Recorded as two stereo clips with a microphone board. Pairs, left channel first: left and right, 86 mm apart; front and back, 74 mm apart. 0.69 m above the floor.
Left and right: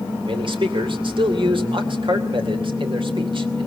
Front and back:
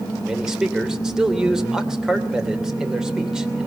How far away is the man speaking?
About 3 m.